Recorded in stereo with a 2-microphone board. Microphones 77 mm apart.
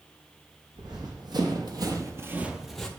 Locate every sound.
0.8 s running footsteps: 65° right (ahead or behind), 1.6 m; by 2.9 s 10° left (ahead or behind), 0.8 m